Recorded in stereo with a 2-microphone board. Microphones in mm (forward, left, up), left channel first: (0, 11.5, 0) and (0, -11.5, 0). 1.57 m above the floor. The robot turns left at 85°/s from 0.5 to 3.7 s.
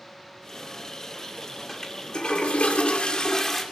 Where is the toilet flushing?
170° left, 2.5 m; by 3.6 s 5° left, 2.5 m.